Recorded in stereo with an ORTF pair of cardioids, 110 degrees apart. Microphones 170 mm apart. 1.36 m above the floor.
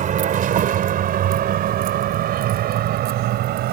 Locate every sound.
0.0 s a vehicle: 50° right; by 3.7 s 75° right